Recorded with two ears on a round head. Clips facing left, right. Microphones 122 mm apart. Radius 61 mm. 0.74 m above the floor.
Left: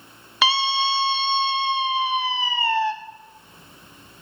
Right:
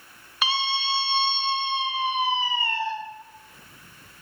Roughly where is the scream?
Left.